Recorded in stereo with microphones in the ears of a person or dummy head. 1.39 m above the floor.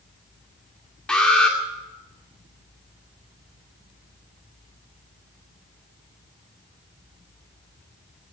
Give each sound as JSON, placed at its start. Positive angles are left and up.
{"t": 1.1, "sound": "an alarm", "side_deg": 5, "distance_m": 2.5}